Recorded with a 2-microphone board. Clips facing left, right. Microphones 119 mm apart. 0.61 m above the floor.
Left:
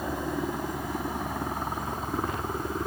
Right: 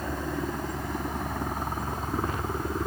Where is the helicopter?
5° left (ahead or behind); by 2.9 s centre (ahead or behind).